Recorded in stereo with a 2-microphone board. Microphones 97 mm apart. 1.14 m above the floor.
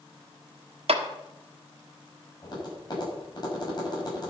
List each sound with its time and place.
0.9 s a clap: 75° right (ahead or behind), 1.4 m
2.4 s tapping: 45° left (ahead or behind), 7 m